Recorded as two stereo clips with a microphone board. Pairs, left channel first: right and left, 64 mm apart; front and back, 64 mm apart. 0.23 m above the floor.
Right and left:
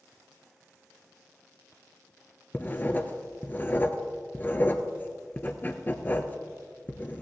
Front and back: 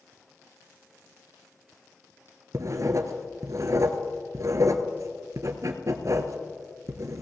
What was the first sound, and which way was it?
Writing, 150° right.